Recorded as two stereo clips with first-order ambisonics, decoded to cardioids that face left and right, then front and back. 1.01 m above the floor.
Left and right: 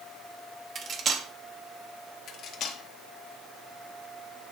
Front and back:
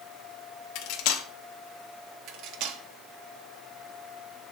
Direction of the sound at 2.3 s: 145° left.